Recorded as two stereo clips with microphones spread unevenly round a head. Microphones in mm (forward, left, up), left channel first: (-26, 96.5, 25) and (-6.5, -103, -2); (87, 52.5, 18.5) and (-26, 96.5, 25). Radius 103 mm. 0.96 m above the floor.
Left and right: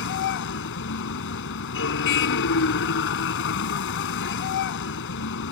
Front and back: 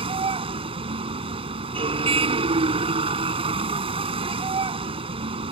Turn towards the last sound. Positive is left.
turn(degrees=120)